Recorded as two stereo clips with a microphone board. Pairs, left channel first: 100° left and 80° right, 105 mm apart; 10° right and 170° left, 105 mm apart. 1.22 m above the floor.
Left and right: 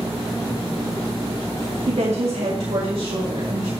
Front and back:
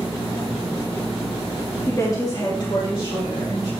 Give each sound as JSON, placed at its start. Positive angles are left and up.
{"t": 1.9, "sound": "a woman speaking", "azimuth_deg": -75, "distance_m": 2.0}